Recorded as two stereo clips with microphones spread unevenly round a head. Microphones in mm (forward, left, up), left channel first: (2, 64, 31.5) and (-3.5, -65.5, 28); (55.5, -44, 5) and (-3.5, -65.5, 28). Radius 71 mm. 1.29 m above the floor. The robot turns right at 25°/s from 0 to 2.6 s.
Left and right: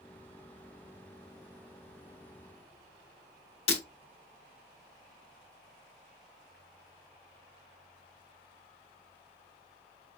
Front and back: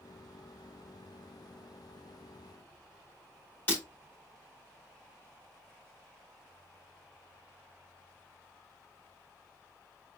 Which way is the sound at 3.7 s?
105° left.